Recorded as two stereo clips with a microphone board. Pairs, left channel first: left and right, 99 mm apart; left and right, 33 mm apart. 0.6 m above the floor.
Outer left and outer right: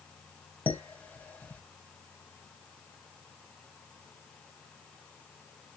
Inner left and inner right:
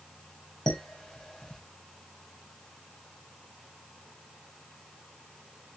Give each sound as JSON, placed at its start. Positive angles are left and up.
{"t": 0.7, "sound": "dishes clattering", "side_deg": 15, "distance_m": 2.0}